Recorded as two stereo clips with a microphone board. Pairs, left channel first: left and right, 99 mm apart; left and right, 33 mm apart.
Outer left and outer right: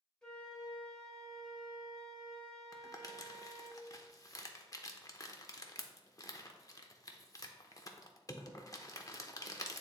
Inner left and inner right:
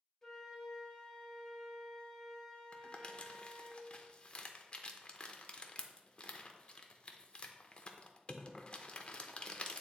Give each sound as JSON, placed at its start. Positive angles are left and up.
{"t": 0.2, "sound": "a flute", "side_deg": 5, "distance_m": 1.4}
{"t": 2.7, "sound": "crumpling", "side_deg": 35, "distance_m": 0.6}